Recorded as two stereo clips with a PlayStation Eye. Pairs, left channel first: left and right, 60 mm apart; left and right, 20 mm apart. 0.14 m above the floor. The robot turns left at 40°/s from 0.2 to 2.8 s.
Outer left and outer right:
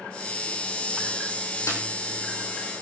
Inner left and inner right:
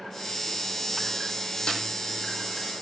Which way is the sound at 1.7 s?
55° left (ahead or behind).